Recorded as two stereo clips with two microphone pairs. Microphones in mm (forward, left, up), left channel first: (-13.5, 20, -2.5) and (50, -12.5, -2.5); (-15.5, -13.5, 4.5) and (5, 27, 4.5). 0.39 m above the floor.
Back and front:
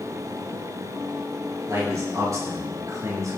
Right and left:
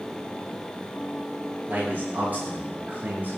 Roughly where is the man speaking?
Ahead.